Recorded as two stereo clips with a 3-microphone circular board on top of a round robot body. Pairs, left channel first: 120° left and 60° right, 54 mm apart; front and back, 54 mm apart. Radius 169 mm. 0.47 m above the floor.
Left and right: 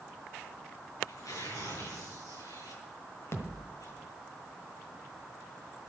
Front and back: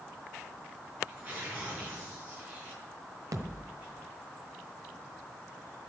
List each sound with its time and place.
1.1 s tearing paper: 120° left, 8 m
3.3 s a thud: 160° left, 1.4 m